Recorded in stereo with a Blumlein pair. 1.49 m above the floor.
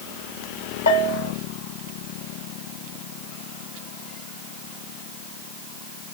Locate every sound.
0.9 s a bell: 65° left, 0.9 m